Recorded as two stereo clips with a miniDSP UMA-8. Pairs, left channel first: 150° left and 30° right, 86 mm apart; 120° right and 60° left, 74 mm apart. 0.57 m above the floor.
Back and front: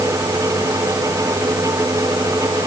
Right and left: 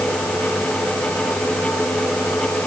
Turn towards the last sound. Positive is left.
No sound to turn to.